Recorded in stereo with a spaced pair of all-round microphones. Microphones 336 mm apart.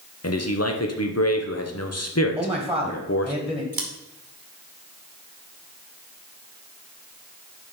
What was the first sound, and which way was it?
A man speaking, 45° left (ahead or behind).